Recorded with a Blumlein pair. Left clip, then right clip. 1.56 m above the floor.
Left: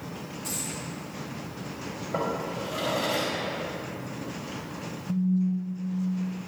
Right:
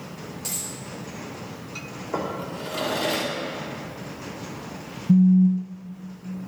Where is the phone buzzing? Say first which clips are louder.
Right 10 dB; 55° right, 0.8 m.